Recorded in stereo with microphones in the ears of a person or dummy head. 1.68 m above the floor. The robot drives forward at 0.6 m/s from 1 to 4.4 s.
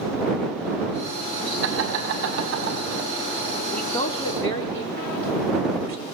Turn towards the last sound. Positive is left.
turn(degrees=25)  # may be behind; listen again after turning